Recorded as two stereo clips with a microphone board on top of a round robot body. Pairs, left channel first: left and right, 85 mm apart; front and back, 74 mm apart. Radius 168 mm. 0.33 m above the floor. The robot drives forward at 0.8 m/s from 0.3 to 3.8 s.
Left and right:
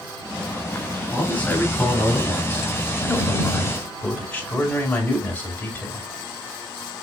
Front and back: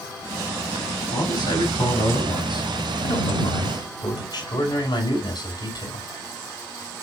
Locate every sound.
1.1 s a man speaking: 20° left, 7 m; by 6.1 s 25° left, 5 m